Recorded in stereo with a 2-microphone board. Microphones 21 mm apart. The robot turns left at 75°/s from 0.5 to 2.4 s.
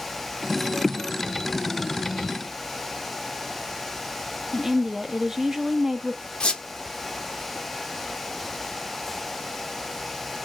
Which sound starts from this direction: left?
A squeak, at 6.4 s.